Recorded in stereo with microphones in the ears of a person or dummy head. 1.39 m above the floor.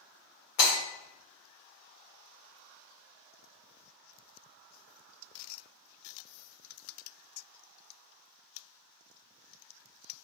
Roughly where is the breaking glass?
Left.